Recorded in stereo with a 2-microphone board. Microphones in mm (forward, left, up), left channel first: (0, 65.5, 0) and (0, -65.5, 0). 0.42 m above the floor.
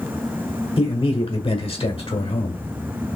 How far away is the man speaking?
About 1.3 m.